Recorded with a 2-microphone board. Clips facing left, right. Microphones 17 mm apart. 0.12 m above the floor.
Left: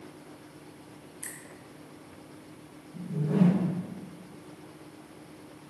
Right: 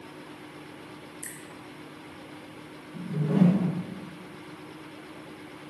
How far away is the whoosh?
About 3.5 m.